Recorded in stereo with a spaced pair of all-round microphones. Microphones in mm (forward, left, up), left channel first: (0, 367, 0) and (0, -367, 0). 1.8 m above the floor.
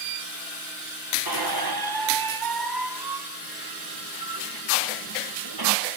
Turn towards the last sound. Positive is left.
turn(degrees=-30)  # may be behind; listen again after turning